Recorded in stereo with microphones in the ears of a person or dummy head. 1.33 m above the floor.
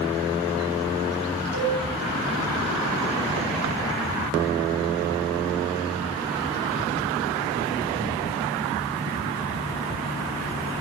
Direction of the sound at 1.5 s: 75° right (ahead or behind).